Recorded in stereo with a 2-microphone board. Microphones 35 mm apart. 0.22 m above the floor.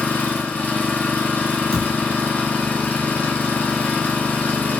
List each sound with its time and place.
0.0 s an engine running: 60° left (ahead or behind), 0.9 m
1.7 s a thud: 30° left (ahead or behind), 0.9 m